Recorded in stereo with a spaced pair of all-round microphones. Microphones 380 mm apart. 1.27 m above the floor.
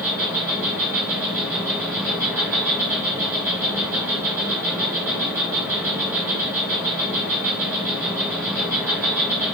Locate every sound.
0.0 s an insect: 5° right (ahead or behind), 1.1 m